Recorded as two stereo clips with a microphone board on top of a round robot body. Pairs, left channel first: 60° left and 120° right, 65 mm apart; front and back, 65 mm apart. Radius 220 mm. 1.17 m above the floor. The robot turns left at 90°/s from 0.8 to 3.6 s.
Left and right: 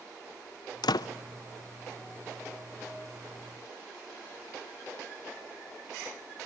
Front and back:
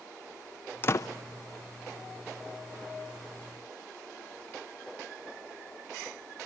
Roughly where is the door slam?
Ahead left.